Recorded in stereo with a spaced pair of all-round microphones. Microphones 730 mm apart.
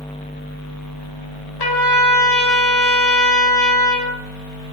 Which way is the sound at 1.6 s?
30° left (ahead or behind).